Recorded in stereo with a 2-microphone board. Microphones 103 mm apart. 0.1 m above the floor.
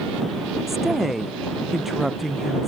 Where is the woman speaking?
Centre (ahead or behind).